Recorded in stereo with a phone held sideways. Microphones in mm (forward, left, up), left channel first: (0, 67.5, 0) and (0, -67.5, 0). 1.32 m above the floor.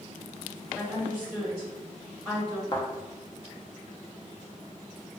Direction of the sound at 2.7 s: 35° left (ahead or behind).